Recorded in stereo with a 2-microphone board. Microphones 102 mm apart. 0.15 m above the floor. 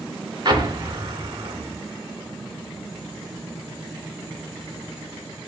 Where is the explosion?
45° right (ahead or behind), 2 m.